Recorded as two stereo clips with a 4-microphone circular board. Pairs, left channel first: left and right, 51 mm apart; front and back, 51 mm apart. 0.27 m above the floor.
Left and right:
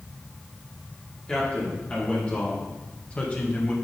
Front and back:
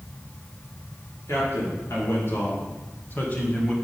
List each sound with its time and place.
1.3 s a man speaking: 20° left, 4.5 m; by 3.8 s 60° left, 1.5 m